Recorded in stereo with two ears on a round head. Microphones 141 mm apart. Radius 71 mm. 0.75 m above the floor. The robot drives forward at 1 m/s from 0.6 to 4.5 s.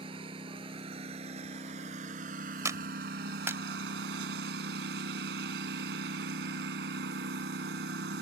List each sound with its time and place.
0.0 s a lawn mower: 35° right (ahead or behind); by 8.2 s 80° right
2.6 s a clap: 20° right (ahead or behind); by 3.6 s 15° right (ahead or behind)